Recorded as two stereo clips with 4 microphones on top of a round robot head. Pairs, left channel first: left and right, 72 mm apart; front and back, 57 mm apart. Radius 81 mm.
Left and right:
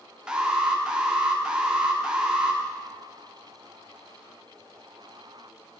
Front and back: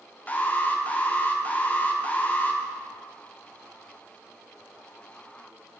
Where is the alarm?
25° right, 0.8 m.